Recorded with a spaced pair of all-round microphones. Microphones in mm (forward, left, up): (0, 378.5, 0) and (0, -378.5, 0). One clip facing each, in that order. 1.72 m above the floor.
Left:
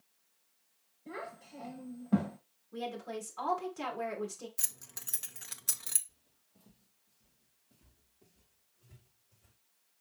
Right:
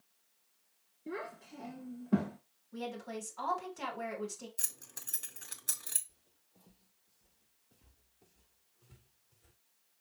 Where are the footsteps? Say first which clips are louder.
Even; 45° left (ahead or behind), 2.5 m; by 9.6 s 70° left (ahead or behind), 4.5 m.